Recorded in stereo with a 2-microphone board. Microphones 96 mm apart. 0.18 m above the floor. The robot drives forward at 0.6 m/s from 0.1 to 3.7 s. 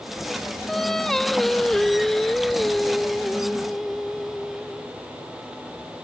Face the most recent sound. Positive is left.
turn(degrees=0)  # may be behind; listen again after turning